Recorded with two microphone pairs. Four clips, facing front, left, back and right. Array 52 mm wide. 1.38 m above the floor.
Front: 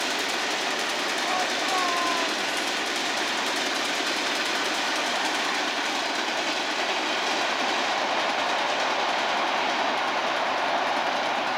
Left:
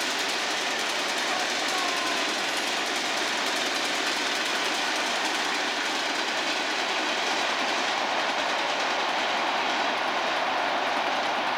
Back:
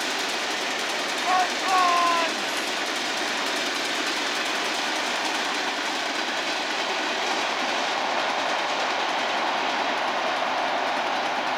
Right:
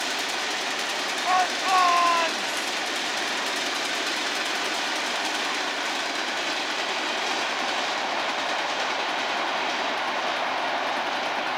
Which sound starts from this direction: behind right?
A shout, at 1.2 s.